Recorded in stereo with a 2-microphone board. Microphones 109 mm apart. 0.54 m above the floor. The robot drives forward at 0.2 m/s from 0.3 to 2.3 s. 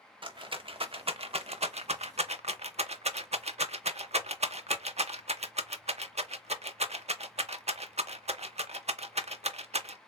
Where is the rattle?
50° right (ahead or behind), 0.6 m; by 10.0 s 80° right, 0.5 m.